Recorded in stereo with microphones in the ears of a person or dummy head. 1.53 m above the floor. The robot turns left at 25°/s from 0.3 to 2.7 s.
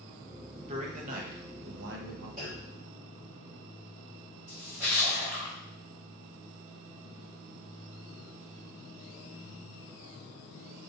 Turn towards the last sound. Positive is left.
turn(degrees=-10)  # may be behind; listen again after turning